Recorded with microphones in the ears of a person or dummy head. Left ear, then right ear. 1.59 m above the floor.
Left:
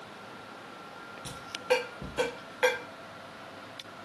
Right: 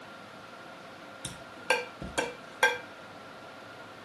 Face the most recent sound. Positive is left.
turn(degrees=-30)  # may be behind; listen again after turning